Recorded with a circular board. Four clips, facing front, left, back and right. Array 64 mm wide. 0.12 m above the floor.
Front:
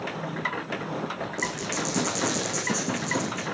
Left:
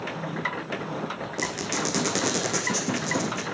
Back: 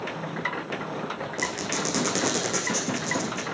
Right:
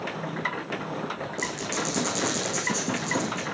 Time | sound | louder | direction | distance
1.4 | a squeak | left 3 dB, back 1 dB | 130° left | 3 m